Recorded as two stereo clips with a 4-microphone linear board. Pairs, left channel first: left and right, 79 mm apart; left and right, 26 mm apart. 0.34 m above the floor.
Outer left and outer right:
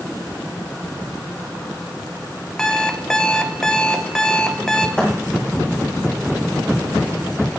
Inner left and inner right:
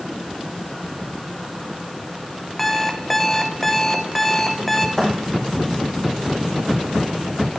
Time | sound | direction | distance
2.6 | an alarm clock | 10° left (ahead or behind) | 0.8 m
5.0 | a thud | 15° left (ahead or behind) | 3 m